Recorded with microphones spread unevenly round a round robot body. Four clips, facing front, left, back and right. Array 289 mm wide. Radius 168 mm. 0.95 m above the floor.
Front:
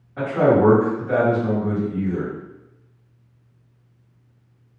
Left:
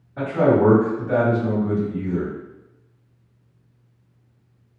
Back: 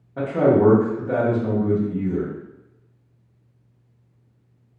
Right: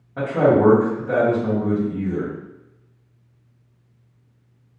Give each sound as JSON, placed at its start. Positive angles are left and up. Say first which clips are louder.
{"t": 0.2, "sound": "a man speaking", "louder": "right 1 dB, even", "azimuth_deg": -165, "distance_m": 1.1}